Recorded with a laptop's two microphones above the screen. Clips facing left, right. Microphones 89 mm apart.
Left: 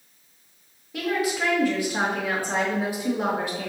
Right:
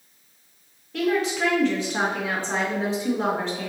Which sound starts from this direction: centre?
A woman speaking, at 0.9 s.